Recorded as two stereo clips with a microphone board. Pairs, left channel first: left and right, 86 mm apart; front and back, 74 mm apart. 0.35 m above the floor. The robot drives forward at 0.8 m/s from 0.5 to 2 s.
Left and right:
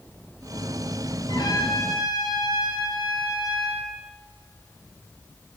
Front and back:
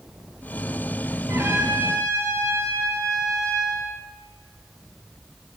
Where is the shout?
No shout in this recording.